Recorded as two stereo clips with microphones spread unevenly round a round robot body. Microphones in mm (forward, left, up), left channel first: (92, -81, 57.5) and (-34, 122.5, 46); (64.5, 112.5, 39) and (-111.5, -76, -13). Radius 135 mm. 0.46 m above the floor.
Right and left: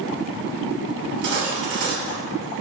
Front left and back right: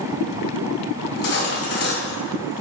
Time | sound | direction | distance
1.0 | cutlery clinking | 80° left | 3 m